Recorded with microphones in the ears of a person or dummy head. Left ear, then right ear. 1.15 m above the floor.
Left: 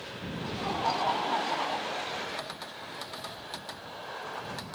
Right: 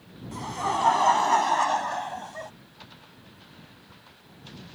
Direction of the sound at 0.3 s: 65° right (ahead or behind).